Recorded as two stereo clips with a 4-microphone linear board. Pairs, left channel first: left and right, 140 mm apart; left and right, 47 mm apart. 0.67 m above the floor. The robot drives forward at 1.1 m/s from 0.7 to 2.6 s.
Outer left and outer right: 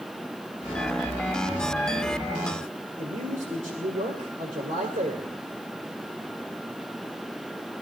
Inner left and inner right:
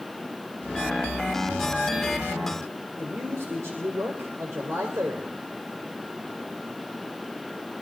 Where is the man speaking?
75° right (ahead or behind), 2.5 m.